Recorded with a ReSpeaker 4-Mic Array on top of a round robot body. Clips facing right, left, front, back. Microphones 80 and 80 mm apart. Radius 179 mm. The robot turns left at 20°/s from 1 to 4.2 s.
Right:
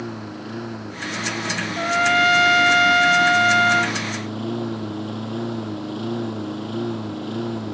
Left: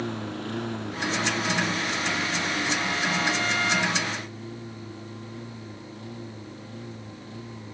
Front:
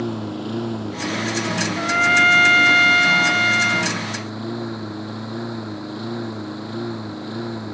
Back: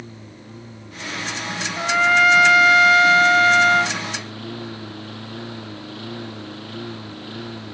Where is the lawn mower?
5° right; by 7.8 s 70° right.